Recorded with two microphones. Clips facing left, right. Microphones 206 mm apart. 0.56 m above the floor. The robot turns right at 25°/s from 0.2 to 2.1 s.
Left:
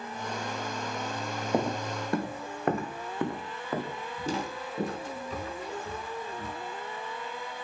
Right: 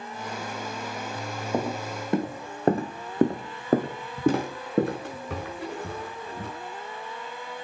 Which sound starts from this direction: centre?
Footsteps, at 1.5 s.